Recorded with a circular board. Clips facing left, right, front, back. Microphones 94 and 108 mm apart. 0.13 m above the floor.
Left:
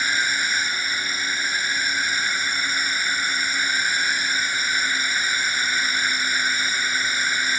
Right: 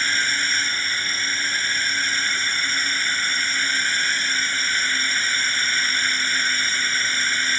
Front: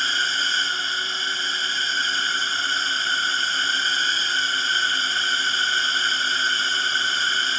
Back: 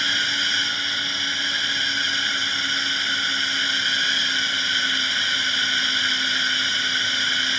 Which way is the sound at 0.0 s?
20° left.